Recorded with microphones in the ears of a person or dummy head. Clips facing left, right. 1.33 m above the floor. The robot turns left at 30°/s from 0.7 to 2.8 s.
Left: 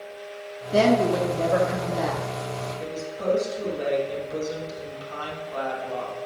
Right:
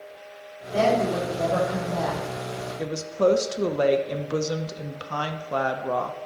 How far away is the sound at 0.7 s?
About 1.5 m.